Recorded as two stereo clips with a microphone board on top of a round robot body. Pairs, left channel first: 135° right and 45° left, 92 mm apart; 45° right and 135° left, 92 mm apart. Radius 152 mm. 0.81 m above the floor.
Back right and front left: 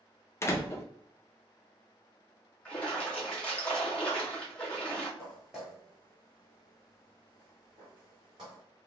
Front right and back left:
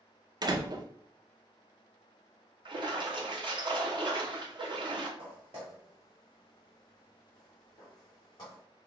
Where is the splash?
150° left, 1.7 m.